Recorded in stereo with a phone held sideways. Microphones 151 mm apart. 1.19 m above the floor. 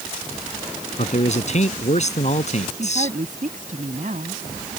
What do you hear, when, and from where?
1.0 s a man speaking: 50° left (ahead or behind)
2.8 s a woman speaking: 55° right (ahead or behind)